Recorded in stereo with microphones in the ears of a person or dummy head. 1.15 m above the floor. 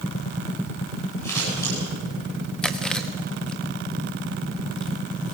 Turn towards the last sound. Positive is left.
turn(degrees=0)  # may be behind; listen again after turning